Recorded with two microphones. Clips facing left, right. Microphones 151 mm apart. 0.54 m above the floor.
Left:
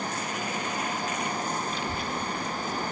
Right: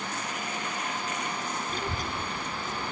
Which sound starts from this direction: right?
A child speaking, at 1.7 s.